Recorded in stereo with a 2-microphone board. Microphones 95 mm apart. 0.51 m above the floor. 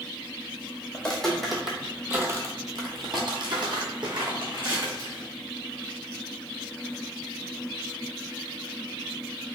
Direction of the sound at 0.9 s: 10° left (ahead or behind).